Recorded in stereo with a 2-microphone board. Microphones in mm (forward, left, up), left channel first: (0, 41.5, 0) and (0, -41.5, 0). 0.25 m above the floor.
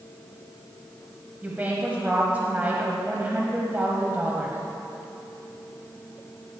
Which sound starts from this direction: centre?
A woman speaking, at 1.4 s.